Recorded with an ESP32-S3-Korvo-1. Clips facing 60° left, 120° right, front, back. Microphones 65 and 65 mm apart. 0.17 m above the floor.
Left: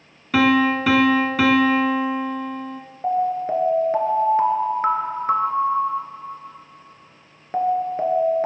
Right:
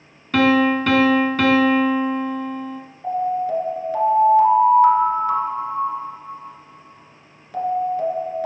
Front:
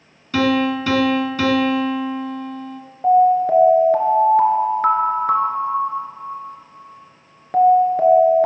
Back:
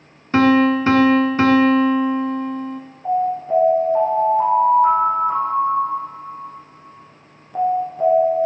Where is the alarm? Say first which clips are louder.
Even, front 7 dB; 10° left, 1.5 m.